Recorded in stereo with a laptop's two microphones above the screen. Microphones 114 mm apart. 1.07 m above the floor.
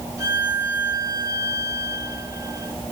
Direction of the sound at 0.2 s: 30° right (ahead or behind).